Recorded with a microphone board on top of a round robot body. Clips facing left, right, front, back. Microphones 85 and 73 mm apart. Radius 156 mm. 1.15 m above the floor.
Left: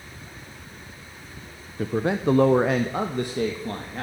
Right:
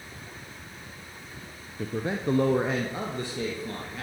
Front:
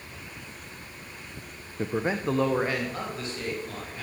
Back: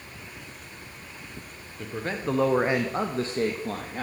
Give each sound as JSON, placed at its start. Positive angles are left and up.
{"t": 1.8, "sound": "a man speaking", "azimuth_deg": 55, "distance_m": 1.0}